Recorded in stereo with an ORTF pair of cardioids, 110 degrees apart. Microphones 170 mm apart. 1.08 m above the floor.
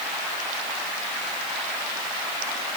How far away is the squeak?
No squeak in this recording.